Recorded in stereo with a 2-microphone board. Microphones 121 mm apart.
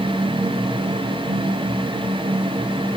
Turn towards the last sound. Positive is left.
No sound to turn to.